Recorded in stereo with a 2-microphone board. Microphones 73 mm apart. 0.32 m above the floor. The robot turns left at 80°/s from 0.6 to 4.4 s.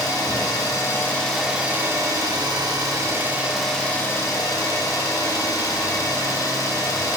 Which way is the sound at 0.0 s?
65° left.